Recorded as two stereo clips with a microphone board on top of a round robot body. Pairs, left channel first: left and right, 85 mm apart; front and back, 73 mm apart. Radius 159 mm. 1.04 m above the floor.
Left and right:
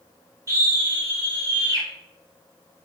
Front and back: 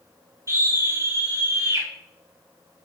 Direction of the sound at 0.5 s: 135° right.